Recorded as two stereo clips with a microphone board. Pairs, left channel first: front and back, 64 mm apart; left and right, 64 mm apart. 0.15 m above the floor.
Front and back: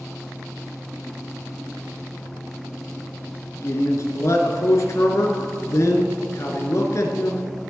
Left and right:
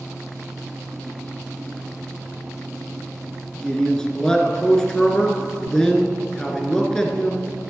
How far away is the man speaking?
About 1.7 m.